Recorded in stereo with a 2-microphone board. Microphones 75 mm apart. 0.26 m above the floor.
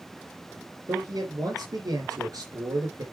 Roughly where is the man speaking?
Right.